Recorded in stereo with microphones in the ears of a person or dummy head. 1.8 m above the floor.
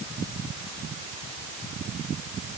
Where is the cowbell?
No cowbell in this recording.